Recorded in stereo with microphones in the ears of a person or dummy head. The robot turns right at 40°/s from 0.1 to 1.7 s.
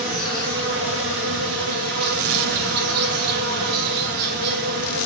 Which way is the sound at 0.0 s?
125° right.